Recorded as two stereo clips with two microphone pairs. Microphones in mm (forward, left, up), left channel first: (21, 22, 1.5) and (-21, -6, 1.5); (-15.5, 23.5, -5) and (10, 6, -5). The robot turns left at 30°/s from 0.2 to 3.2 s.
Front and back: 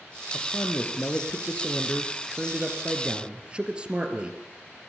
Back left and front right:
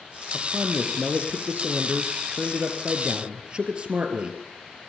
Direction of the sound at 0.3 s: Straight ahead.